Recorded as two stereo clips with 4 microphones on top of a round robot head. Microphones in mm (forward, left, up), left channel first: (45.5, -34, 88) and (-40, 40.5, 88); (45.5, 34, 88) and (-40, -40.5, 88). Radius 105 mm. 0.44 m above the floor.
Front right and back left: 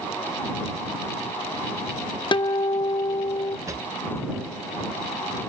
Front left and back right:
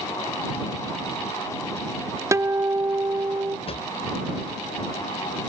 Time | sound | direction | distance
2.3 | a guitar | 80° right | ?
3.7 | a drawer | 75° left | ?